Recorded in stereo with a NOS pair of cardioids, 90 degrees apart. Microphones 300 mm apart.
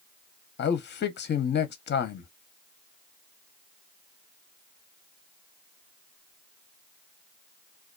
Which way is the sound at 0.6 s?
40° left.